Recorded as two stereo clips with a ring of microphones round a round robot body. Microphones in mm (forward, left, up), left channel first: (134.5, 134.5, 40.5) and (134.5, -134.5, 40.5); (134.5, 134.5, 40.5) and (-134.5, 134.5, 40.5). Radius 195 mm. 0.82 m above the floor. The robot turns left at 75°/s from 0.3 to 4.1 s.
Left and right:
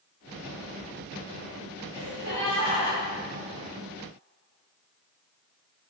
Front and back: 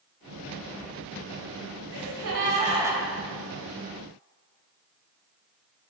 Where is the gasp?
170° left, 1.8 m; by 3.0 s 90° left, 1.8 m.